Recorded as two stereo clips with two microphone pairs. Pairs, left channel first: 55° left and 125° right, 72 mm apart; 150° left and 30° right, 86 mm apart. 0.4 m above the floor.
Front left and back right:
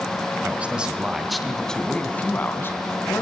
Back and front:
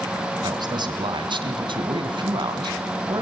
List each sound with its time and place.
0.4 s a man speaking: 60° right, 3.5 m; by 3.2 s 5° left, 4 m